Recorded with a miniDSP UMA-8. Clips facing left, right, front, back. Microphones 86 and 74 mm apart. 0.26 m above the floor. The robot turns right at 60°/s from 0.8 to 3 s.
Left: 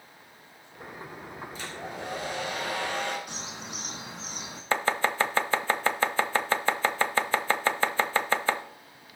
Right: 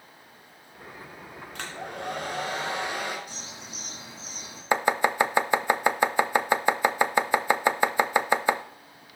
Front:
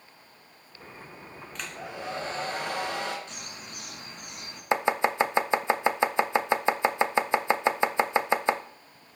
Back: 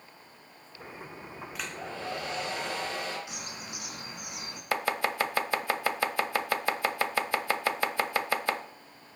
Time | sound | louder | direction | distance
1.6 | a hair dryer | right 3 dB, front 1 dB | 100° right | 3 m
3.3 | a bird | left 3 dB, back 1 dB | 100° left | 2.5 m
4.7 | chopping | right 3 dB, front 5 dB | 40° right | 0.7 m